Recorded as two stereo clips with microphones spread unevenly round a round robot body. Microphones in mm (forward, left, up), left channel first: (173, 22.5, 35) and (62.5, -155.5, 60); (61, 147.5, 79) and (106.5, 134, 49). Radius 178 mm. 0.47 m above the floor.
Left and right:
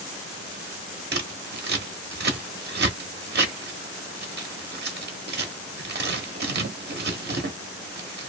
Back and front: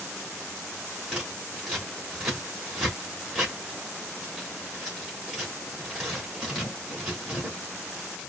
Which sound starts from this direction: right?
Scissors, at 1.1 s.